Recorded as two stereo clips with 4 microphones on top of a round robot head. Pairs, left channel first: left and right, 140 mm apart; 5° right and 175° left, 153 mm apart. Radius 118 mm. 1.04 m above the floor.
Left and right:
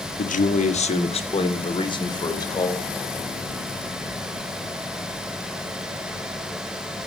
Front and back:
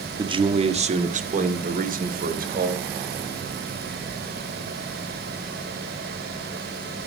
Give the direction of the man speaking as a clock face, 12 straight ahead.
8 o'clock.